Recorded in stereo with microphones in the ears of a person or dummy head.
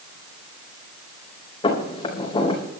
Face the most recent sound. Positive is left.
turn(degrees=25)  # may be behind; listen again after turning